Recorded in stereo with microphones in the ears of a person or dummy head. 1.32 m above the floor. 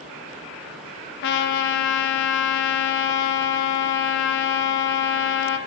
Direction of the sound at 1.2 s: 55° left (ahead or behind).